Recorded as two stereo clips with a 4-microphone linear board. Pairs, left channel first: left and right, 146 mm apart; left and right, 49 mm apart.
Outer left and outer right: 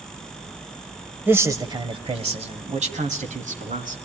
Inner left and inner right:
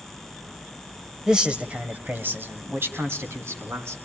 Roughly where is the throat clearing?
No throat clearing in this recording.